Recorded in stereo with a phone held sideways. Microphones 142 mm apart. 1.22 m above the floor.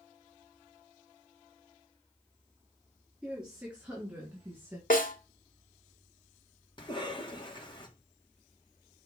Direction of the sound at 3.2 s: 5° right (ahead or behind).